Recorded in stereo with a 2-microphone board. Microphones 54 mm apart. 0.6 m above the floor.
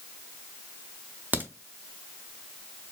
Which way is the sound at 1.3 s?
35° right (ahead or behind).